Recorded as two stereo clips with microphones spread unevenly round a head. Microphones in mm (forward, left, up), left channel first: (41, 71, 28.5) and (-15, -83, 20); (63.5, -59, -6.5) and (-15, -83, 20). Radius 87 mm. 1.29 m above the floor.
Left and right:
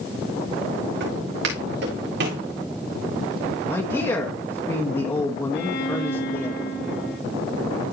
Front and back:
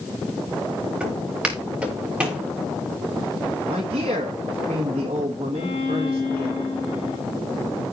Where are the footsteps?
95° right, 6 m.